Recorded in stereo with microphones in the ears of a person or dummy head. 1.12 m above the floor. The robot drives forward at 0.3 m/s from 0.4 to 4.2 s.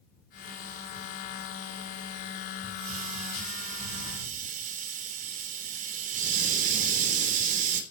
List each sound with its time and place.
2.6 s a hiss: 40° right (ahead or behind), 3 m; by 7.8 s 50° right (ahead or behind), 2.5 m